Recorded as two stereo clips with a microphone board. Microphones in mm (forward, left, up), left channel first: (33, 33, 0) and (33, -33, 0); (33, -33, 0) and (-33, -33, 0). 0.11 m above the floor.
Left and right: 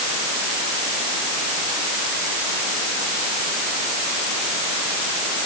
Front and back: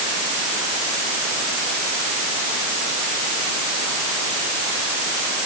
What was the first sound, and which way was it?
Only background noise.